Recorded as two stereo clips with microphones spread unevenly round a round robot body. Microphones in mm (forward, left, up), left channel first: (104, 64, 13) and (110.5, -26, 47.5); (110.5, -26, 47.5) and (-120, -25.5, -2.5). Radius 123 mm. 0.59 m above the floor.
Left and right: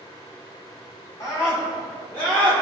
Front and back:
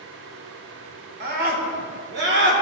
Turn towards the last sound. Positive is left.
turn(degrees=160)